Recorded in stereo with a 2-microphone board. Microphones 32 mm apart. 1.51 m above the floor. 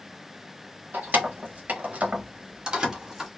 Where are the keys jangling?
65° right (ahead or behind), 1.0 m; by 3.3 s 10° right (ahead or behind), 1.1 m.